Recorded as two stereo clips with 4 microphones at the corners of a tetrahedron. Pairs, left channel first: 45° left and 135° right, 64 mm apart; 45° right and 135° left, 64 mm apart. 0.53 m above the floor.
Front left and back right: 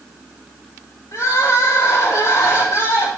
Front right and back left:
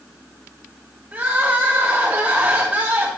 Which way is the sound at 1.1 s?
70° left.